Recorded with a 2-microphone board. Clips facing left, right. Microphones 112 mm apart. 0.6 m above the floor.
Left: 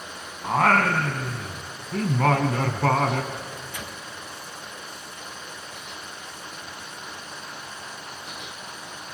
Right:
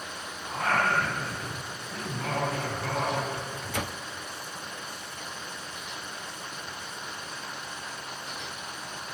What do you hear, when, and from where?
0.4 s singing: 80° left, 2 m
3.3 s a microwave: 70° right (ahead or behind), 0.9 m